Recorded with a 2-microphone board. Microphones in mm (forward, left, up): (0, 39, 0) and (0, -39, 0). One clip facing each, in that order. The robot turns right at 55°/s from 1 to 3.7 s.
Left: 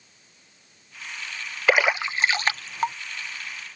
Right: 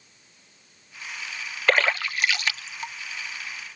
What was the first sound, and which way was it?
A splash, 5° left (ahead or behind).